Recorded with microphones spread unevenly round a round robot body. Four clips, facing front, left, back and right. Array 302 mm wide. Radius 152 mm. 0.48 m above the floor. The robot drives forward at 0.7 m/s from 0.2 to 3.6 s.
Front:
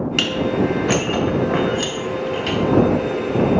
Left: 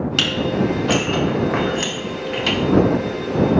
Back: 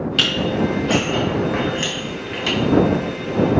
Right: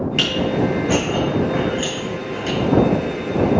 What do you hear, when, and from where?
0.2 s dishes clattering: 40° left, 1.8 m; by 2.6 s 105° left, 1.2 m